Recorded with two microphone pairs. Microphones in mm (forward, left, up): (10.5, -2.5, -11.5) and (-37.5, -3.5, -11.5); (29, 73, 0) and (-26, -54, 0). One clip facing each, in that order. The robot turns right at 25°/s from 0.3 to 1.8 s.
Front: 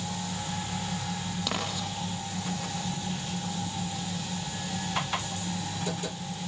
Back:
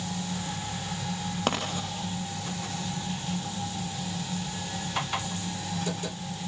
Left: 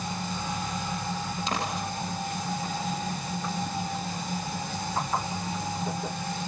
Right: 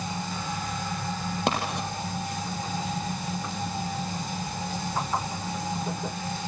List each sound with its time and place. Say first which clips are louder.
1.5 s writing: back 4 dB, right 4 dB; 135° right, 6.5 m; by 1.9 s 130° right, 6.5 m